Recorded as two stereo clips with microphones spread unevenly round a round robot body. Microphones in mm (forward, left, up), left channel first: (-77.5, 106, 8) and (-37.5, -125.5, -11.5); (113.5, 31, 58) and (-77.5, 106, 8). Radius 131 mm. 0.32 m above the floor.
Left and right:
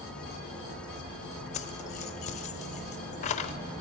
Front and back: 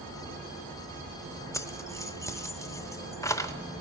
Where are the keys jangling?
70° left, 0.7 m.